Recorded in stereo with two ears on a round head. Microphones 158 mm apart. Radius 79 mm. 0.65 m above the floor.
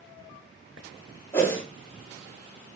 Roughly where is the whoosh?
Centre.